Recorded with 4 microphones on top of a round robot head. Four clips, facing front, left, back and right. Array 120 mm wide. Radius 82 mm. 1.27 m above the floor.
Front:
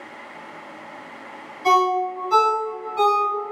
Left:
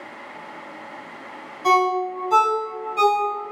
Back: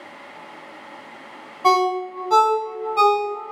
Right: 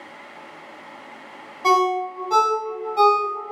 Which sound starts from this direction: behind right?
A ringtone, at 1.6 s.